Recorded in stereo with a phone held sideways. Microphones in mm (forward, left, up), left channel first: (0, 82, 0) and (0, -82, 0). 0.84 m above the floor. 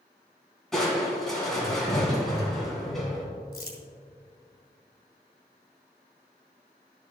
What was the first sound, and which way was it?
Crushing, centre (ahead or behind).